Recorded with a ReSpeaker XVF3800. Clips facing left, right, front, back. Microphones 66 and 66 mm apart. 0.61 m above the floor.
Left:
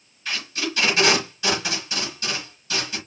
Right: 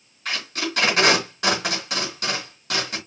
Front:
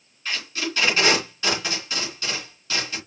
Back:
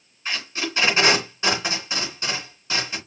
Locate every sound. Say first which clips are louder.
0.2 s tape being pulled: right 1 dB, even; 115° right, 3.5 m